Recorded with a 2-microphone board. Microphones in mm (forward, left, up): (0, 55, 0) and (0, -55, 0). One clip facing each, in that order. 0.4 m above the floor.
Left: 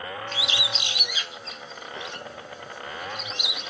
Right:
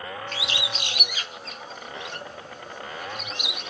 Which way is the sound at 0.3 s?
50° right (ahead or behind).